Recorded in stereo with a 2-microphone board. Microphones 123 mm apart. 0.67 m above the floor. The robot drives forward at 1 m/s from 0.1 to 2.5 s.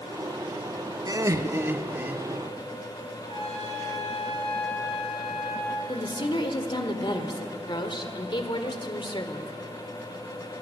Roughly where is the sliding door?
No sliding door in this recording.